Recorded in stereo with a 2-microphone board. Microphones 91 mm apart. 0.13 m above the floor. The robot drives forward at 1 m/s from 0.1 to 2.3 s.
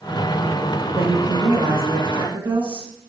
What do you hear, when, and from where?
0.8 s a woman speaking: 75° right (ahead or behind), 5.5 m; by 2.9 s 65° right (ahead or behind), 5.5 m